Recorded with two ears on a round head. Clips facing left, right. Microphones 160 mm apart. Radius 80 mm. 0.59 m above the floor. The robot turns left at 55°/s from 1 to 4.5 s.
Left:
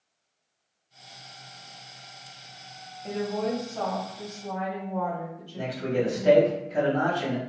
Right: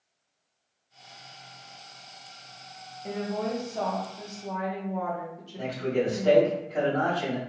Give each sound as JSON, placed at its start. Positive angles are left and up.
{"t": 3.0, "sound": "a woman speaking", "side_deg": -5, "distance_m": 1.0}
{"t": 5.6, "sound": "a man speaking", "side_deg": 25, "distance_m": 1.1}